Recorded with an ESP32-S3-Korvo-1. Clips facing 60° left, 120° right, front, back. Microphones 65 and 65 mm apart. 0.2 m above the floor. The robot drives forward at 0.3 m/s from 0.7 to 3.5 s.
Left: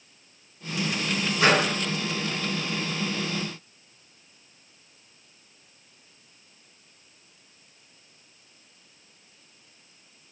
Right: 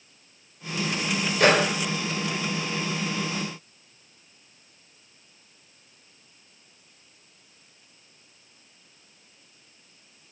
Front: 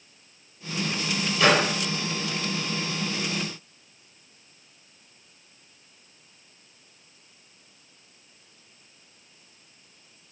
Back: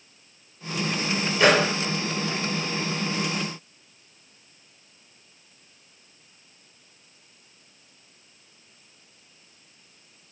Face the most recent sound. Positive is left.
turn(degrees=-140)